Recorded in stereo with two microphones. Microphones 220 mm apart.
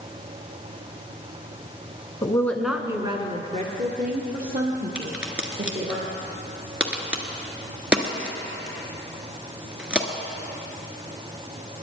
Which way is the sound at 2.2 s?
20° left (ahead or behind).